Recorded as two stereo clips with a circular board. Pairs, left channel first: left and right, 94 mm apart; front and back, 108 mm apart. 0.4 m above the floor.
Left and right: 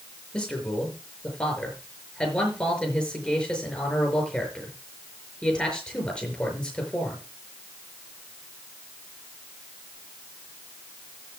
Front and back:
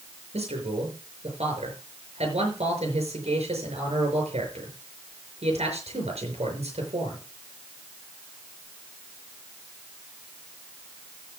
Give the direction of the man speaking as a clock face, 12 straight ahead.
6 o'clock.